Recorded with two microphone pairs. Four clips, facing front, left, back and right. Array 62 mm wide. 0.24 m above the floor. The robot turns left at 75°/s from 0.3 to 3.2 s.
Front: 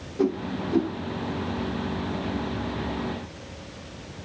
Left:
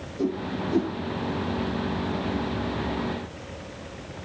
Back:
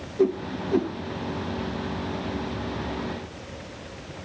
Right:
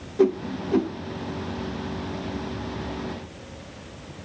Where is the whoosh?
75° right, 1.0 m; by 0.9 s 120° right, 1.0 m.